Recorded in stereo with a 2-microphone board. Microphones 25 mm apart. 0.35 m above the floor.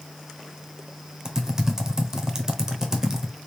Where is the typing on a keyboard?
20° right (ahead or behind), 1.0 m.